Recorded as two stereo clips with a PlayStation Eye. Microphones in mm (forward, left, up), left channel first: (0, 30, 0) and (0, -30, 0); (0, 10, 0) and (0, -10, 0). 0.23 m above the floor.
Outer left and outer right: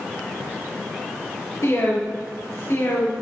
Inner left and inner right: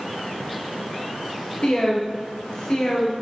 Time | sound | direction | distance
1.6 | a woman speaking | 55° left (ahead or behind) | 5 m